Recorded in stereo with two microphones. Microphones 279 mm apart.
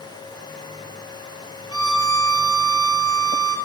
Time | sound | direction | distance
1.7 | a violin | 55° right (ahead or behind) | 1.3 m